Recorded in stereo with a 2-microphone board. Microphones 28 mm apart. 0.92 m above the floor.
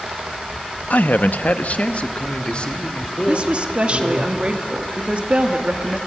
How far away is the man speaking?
About 0.9 m.